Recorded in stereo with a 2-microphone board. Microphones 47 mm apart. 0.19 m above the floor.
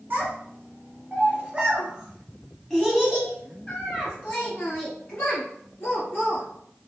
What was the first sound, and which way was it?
A child speaking, 45° right (ahead or behind).